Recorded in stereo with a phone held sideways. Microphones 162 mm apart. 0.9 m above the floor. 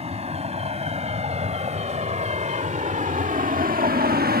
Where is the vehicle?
40° right (ahead or behind); by 4.4 s 70° right (ahead or behind).